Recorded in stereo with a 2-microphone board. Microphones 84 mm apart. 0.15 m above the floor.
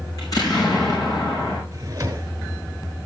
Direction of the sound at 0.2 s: 50° left (ahead or behind).